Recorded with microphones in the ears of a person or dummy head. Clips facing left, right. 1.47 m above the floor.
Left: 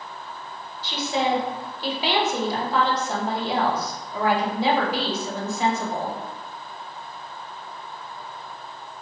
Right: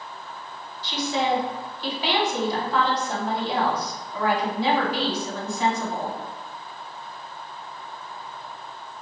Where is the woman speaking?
30° left (ahead or behind), 1.0 m.